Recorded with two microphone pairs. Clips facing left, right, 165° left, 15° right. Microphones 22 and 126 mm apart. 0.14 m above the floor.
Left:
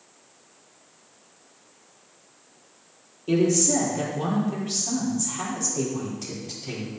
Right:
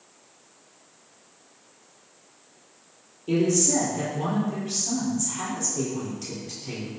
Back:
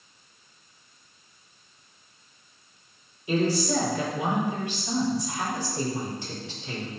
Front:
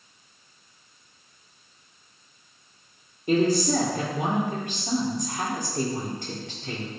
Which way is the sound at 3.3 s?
10° left.